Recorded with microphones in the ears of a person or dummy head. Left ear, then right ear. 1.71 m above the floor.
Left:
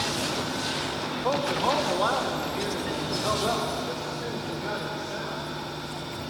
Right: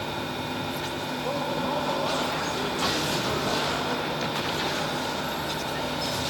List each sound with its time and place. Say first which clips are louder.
1.1 s a man speaking: left 4 dB; 55° left (ahead or behind), 2 m; by 5.4 s 70° left (ahead or behind), 6 m